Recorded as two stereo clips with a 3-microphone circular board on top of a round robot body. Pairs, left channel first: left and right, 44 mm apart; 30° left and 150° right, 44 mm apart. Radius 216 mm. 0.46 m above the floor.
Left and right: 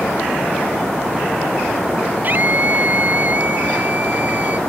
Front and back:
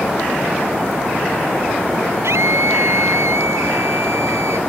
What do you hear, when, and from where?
2.2 s a scream: 140° right